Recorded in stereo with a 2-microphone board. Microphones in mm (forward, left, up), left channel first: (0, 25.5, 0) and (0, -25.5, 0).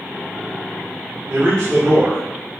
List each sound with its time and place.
1.3 s a man speaking: 80° right, 1.5 m